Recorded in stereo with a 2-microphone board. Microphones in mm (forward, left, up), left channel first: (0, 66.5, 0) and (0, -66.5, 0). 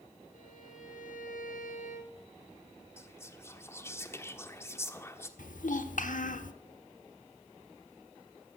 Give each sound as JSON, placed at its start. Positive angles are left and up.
{"t": 0.3, "sound": "a violin", "side_deg": 80, "distance_m": 3.0}
{"t": 3.0, "sound": "whispering", "side_deg": 20, "distance_m": 1.3}
{"t": 5.4, "sound": "a child speaking", "side_deg": 80, "distance_m": 1.2}